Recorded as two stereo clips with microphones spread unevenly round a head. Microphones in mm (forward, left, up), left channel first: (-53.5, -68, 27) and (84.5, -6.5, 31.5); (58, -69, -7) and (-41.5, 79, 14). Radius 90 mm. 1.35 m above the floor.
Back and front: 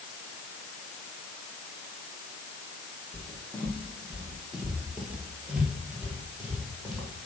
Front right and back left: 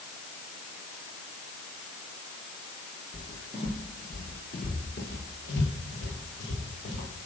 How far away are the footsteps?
About 1.3 m.